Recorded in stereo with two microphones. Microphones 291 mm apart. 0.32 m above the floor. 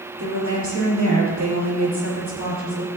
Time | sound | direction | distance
0.2 | a woman speaking | 80° right | 6 m